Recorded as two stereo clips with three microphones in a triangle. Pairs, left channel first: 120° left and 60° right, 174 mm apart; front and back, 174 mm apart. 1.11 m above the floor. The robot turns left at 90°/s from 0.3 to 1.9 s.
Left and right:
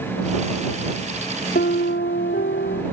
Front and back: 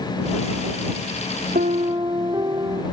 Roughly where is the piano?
Behind left.